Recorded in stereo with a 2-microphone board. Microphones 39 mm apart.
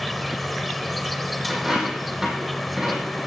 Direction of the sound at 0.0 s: Centre (ahead or behind).